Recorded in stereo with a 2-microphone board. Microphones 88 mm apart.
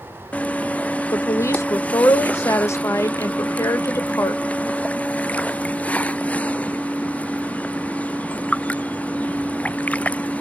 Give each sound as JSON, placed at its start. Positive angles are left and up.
{"t": 1.1, "sound": "a woman speaking", "side_deg": 30, "distance_m": 0.5}